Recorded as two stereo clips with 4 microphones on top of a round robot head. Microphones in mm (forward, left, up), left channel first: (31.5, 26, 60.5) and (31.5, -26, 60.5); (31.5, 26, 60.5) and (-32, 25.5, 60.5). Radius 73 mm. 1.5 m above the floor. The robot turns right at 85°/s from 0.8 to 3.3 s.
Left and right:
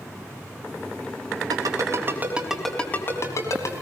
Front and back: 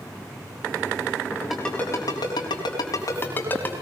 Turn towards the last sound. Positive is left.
turn(degrees=60)